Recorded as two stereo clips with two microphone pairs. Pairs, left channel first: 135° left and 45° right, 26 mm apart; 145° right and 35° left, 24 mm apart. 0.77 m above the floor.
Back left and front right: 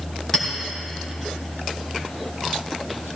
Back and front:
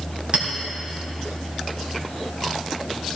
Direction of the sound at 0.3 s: 70° left.